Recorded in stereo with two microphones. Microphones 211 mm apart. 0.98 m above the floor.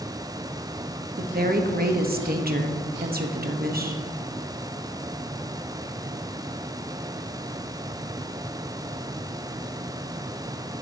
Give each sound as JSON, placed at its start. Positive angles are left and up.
{"t": 1.2, "sound": "a woman speaking", "side_deg": -45, "distance_m": 1.0}